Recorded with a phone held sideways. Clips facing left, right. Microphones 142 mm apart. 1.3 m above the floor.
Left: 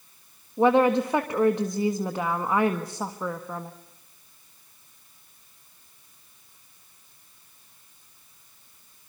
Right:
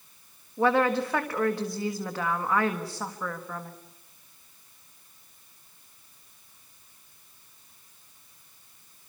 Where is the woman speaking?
20° left (ahead or behind), 1.5 m.